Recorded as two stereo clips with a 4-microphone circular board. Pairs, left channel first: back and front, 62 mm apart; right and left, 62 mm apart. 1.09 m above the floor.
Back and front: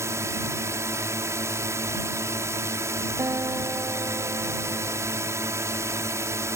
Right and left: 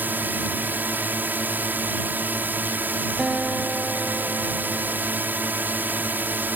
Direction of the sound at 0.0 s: 35° left.